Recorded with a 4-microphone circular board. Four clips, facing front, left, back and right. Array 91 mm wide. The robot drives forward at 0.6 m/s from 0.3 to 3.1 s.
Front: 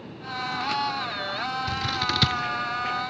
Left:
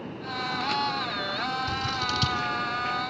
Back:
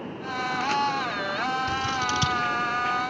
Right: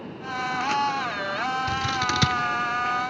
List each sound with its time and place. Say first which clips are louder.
1.7 s scissors: right 4 dB, back 2 dB; 55° right, 1.6 m; by 2.4 s 70° right, 1.4 m